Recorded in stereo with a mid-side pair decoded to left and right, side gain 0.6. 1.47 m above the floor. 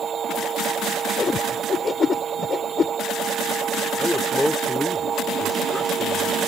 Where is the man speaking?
10° left.